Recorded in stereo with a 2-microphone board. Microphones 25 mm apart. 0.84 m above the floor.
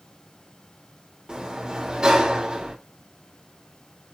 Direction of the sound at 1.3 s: 35° right (ahead or behind).